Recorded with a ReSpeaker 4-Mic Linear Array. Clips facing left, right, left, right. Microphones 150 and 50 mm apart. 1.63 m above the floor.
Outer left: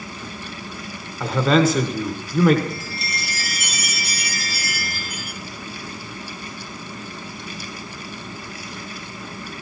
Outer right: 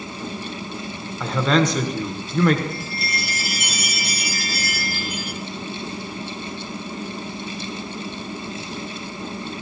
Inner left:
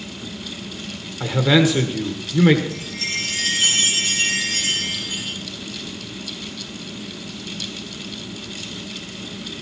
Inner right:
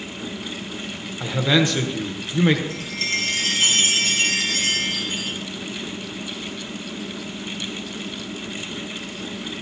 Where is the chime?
60° right (ahead or behind), 3 m.